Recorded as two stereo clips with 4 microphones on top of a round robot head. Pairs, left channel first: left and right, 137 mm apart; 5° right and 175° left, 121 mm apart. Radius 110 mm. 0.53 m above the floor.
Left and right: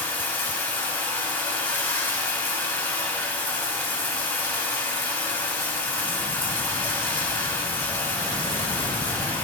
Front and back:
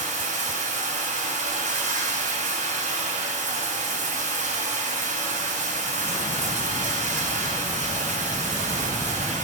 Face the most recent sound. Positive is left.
turn(degrees=165)